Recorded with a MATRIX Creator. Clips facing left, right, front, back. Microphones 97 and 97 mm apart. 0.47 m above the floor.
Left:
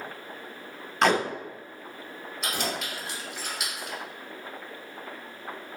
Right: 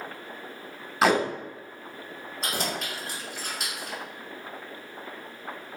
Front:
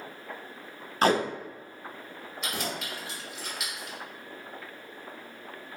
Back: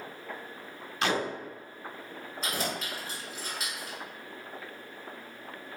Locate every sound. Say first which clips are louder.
1.0 s tape being pulled: right 1 dB, front 6 dB; 5° right, 0.5 m
2.4 s keys jangling: even, back 1 dB; 135° right, 1.5 m